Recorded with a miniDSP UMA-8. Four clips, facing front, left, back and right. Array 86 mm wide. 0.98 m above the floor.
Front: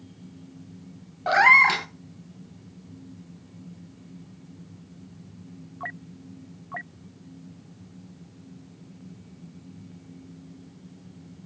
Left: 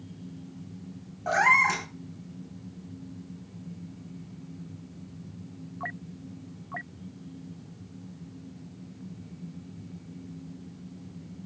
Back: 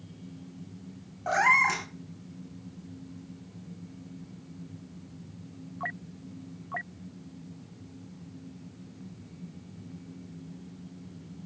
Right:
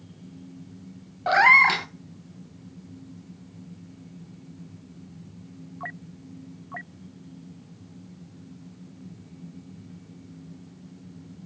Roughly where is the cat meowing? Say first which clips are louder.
Right 5 dB, front 6 dB; ahead right.